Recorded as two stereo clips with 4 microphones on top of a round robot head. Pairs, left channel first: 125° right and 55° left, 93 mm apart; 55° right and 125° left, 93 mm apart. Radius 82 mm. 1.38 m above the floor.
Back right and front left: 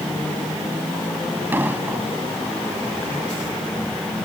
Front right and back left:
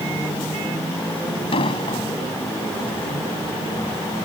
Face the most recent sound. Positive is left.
turn(degrees=-20)